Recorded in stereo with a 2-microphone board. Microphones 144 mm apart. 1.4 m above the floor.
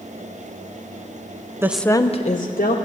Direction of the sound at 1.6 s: 15° right (ahead or behind).